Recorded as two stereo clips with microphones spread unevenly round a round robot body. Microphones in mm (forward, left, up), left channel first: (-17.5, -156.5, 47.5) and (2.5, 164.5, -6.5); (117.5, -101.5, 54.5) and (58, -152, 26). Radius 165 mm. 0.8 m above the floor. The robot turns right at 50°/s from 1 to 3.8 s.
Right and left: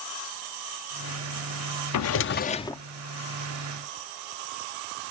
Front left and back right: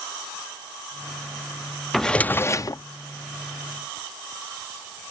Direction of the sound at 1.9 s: 50° right.